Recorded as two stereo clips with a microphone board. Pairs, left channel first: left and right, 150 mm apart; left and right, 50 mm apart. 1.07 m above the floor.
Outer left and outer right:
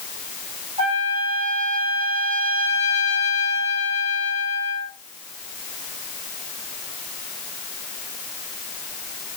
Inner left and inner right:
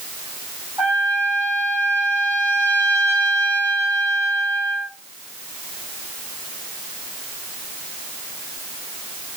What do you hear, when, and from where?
0.8 s a trumpet: 45° right (ahead or behind), 3 m